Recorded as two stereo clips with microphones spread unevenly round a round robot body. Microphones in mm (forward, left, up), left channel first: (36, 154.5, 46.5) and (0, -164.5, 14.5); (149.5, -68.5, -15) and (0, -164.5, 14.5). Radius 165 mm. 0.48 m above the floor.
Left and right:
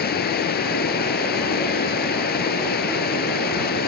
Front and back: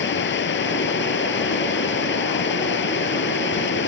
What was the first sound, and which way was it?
Running water, 20° left.